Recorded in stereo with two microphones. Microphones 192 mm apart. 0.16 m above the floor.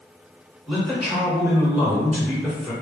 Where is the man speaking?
5° right (ahead or behind), 1.7 m.